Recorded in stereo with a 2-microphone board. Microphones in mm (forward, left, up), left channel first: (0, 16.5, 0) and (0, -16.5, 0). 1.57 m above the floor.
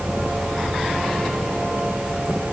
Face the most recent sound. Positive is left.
No sound to turn to.